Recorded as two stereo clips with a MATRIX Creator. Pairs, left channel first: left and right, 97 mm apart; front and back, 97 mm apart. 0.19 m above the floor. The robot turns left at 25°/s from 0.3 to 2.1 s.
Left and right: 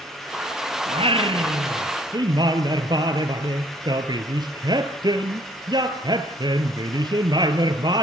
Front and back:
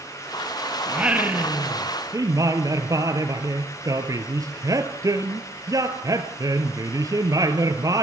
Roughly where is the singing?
Right.